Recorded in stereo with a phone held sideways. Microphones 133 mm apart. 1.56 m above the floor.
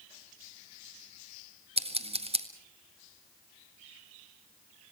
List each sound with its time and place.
1.8 s scissors: 45° right (ahead or behind), 1.8 m